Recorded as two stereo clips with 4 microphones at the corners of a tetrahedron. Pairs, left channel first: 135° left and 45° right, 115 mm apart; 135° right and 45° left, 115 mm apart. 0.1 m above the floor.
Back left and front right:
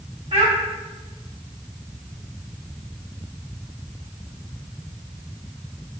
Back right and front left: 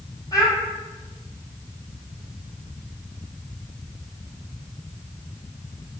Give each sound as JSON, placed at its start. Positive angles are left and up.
{"t": 0.3, "sound": "a child speaking", "azimuth_deg": -75, "distance_m": 3.5}